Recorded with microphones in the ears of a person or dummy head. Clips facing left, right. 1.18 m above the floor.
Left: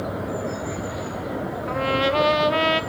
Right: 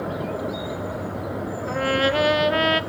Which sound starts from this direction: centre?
A trumpet, at 1.7 s.